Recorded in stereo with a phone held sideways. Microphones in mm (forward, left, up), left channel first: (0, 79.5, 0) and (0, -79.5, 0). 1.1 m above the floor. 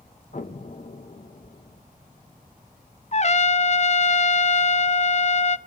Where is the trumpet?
50° left (ahead or behind), 0.7 m.